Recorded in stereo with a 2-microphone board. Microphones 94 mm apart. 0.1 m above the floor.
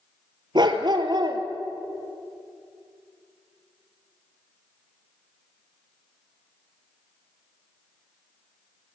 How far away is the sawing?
No sawing in this recording.